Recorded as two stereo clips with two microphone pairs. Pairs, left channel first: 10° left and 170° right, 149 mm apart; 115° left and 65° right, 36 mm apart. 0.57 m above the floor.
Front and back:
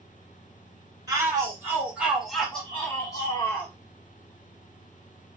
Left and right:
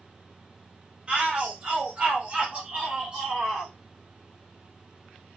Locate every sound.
1.1 s a shout: 115° right, 1.6 m; by 3.7 s 5° right, 1.3 m